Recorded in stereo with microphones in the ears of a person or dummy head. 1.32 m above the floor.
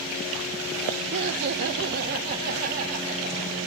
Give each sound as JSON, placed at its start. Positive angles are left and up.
{"t": 1.1, "sound": "laughter", "side_deg": -60, "distance_m": 0.8}